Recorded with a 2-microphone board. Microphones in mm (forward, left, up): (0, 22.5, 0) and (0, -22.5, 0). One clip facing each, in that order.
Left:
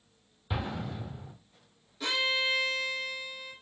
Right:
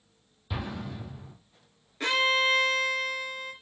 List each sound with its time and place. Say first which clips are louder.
0.5 s an explosion: left 1 dB; 15° left (ahead or behind), 1.1 m
2.0 s a violin: right 5 dB; 60° right (ahead or behind), 1.0 m